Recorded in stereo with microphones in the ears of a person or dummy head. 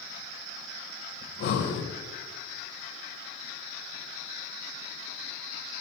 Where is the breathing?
65° left (ahead or behind), 0.6 m.